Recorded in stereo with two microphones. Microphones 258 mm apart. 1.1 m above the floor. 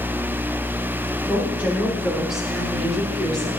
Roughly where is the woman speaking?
Centre.